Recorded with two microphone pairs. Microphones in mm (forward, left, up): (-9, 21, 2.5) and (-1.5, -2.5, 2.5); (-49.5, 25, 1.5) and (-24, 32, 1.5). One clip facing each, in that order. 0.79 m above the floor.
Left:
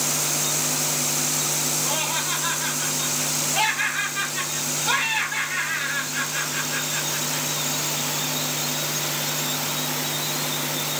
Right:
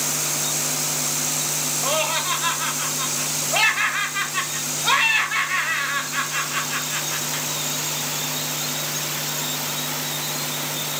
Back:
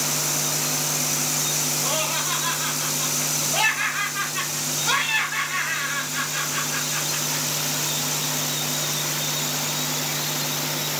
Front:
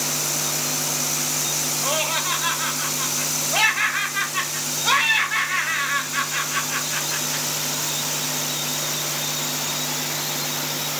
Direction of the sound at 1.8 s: 35° right.